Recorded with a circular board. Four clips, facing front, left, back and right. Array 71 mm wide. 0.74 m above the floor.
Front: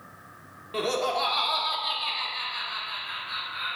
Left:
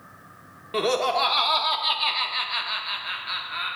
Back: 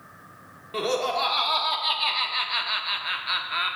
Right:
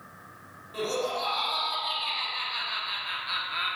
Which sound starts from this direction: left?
Laughter, at 0.7 s.